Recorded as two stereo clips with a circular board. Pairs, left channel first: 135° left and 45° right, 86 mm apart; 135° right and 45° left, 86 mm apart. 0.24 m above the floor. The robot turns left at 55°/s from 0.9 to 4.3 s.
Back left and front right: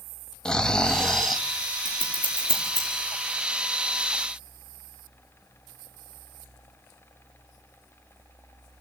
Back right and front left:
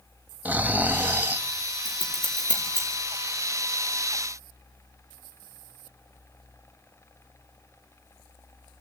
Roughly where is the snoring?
Left.